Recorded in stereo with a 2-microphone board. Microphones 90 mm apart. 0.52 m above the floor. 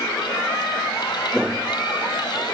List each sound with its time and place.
1.3 s footsteps: 5° right (ahead or behind); by 2.5 s 15° right (ahead or behind)